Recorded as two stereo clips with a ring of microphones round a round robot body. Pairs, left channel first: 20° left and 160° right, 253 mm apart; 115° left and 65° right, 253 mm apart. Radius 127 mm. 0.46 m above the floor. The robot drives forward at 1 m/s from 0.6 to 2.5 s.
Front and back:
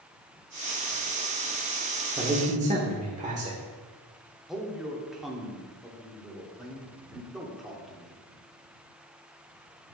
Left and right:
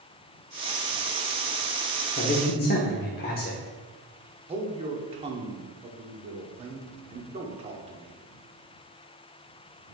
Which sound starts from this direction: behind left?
A man speaking, at 2.2 s.